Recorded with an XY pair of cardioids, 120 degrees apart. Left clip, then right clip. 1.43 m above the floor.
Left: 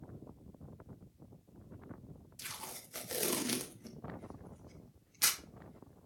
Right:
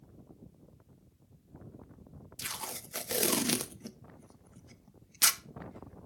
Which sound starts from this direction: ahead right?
Tape being pulled, at 2.4 s.